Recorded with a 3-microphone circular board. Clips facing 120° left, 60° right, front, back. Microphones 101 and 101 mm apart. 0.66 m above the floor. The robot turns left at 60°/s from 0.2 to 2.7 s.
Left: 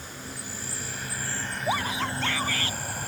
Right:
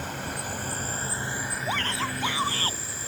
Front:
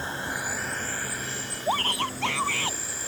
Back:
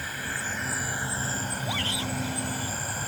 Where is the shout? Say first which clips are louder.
Left 3 dB, front 9 dB; 50° left; by 2.8 s 10° right.